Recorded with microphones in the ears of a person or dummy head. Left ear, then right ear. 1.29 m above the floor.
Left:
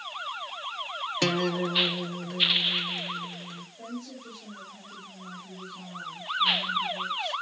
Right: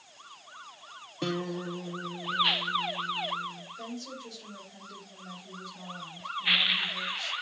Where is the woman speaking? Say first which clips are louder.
Even; 60° right (ahead or behind), 6 m.